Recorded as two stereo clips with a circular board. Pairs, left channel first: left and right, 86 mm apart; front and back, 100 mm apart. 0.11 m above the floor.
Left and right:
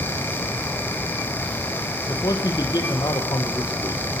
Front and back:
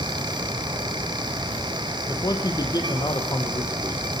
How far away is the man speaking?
About 3.5 m.